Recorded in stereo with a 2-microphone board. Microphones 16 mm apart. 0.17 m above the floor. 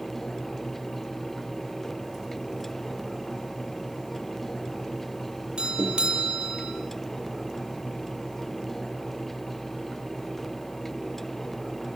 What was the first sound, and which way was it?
A doorbell, 60° right (ahead or behind).